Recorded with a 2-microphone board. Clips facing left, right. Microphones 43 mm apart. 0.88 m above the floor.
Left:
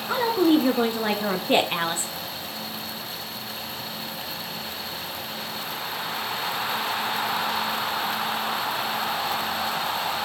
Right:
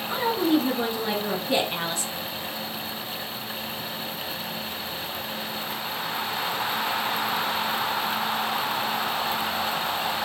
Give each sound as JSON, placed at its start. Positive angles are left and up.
{"t": 0.1, "sound": "a woman speaking", "side_deg": 60, "distance_m": 1.9}